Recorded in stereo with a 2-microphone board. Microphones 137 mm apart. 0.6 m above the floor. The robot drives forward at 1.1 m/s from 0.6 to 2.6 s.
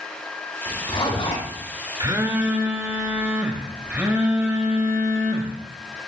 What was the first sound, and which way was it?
A zipper, 40° left (ahead or behind).